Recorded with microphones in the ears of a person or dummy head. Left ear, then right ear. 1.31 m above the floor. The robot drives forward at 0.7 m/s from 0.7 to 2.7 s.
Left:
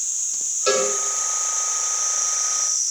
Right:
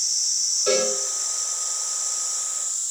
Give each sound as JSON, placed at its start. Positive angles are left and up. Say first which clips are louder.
{"t": 0.7, "sound": "a cowbell", "louder": "left 3 dB", "side_deg": 30, "distance_m": 6.0}